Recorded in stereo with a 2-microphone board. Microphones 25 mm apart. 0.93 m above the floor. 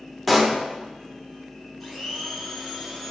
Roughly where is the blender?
Centre.